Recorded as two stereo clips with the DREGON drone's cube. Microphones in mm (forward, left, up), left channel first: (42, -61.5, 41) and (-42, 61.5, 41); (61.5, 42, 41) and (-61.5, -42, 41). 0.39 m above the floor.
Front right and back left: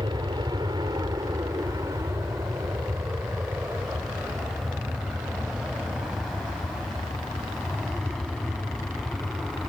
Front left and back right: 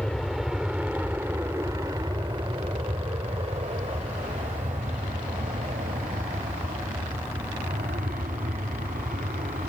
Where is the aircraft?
115° left; by 9.7 s 145° right.